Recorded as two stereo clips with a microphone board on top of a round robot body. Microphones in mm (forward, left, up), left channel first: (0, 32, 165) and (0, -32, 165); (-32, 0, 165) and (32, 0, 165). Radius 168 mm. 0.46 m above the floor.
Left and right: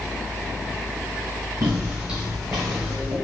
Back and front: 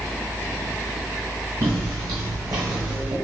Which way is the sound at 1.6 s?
45° right.